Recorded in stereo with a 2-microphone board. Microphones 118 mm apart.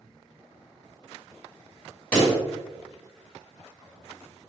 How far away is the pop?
About 1.8 m.